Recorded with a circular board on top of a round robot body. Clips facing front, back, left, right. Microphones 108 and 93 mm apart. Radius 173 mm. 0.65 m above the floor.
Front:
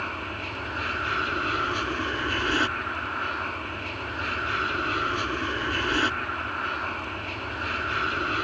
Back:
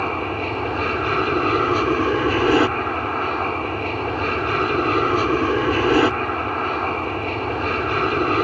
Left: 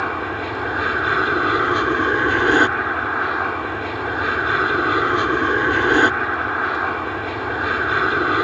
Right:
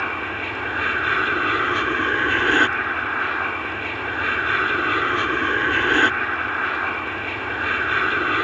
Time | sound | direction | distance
0.0 | an aircraft | 160° left | ?